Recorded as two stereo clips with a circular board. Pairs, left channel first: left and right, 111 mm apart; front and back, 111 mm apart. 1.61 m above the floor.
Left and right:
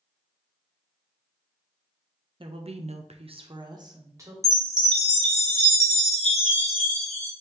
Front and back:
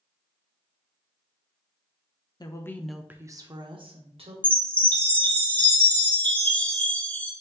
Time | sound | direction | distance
2.4 | a woman speaking | 50° right | 0.6 m
4.4 | a chime | 75° left | 0.8 m